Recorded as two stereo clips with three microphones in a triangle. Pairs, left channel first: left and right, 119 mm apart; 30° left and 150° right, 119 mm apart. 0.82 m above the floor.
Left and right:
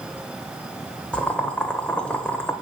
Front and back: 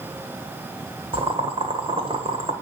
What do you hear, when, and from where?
1.1 s boiling: 170° left, 1.5 m